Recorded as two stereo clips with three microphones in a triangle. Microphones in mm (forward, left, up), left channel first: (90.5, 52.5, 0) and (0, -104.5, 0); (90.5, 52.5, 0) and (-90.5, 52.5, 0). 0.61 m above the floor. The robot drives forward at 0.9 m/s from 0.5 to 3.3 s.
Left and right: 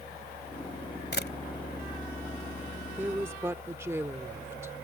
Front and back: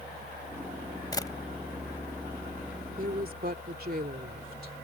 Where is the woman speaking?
165° left.